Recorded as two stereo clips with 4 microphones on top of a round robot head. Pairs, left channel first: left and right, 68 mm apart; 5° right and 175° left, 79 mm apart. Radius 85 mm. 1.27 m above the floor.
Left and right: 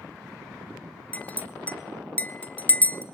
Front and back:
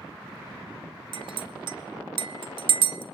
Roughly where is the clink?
Behind.